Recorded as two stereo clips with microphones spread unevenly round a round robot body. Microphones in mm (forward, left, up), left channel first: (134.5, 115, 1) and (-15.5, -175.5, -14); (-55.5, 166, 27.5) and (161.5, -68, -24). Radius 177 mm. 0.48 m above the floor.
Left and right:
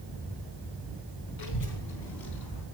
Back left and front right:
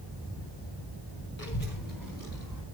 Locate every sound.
1.4 s a child speaking: 70° left, 1.4 m; by 2.6 s 65° left, 2.5 m